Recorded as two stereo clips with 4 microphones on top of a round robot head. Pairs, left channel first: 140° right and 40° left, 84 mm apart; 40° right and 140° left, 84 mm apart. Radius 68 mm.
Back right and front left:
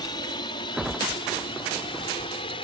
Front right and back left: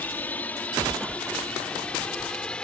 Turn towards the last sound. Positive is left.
turn(degrees=-120)